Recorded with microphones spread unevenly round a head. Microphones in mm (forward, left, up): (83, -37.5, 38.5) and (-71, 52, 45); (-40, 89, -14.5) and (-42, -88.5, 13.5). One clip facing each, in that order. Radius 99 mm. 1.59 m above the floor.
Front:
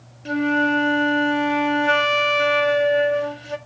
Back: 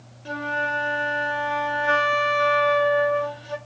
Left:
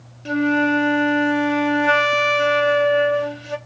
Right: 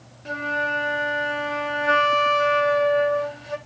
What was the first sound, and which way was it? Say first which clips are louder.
A flute: front 10 dB, left 11 dB; 30° left.